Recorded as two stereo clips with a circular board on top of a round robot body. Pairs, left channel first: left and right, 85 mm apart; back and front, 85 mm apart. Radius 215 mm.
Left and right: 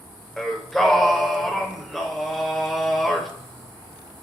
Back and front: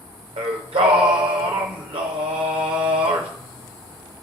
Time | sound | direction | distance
0.4 | singing | 5° left | 0.8 m